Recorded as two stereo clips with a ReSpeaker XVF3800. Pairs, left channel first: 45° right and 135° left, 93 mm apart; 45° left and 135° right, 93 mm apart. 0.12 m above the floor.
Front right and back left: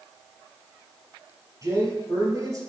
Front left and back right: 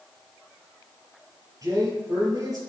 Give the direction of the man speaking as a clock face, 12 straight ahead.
6 o'clock.